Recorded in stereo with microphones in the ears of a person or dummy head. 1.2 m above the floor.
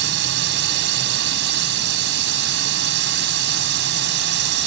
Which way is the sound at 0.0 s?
65° right (ahead or behind).